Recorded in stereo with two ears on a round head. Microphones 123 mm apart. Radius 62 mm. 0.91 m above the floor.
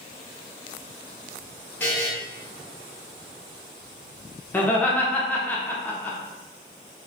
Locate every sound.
1.8 s a buzzer: 10° left (ahead or behind), 0.9 m
4.5 s laughter: 10° left (ahead or behind), 0.6 m